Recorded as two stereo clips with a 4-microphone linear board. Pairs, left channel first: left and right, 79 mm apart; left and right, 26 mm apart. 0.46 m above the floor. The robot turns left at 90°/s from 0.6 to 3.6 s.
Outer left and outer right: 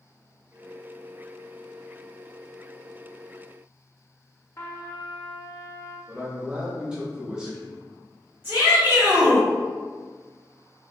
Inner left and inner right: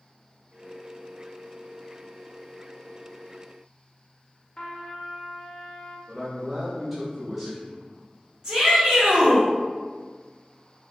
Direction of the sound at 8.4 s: 25° right (ahead or behind).